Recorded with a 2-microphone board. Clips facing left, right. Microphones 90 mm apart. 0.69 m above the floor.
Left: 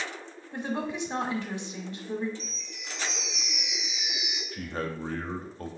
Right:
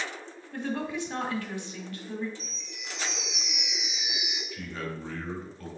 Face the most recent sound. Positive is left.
turn(degrees=45)  # may be behind; listen again after turning